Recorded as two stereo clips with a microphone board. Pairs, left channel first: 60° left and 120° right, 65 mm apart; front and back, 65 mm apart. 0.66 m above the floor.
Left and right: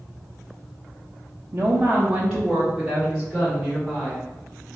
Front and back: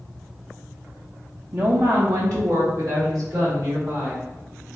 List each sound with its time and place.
1.5 s a woman speaking: 155° right, 0.6 m; by 4.2 s 140° left, 2 m